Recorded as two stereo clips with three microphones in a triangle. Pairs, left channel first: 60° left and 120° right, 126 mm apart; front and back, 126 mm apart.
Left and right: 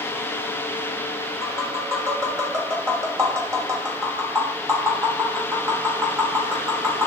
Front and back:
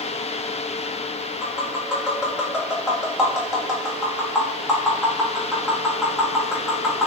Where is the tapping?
105° right, 1.1 m.